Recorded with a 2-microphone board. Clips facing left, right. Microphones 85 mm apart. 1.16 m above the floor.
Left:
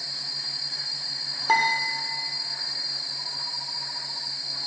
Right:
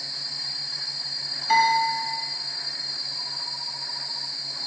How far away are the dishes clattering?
About 2.5 m.